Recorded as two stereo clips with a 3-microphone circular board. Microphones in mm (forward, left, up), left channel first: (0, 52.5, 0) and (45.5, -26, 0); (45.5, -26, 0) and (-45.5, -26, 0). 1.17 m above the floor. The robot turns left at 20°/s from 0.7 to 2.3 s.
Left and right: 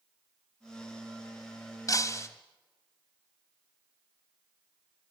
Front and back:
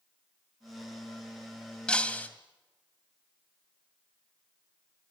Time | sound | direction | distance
1.9 | breaking glass | 80° left | 1.8 m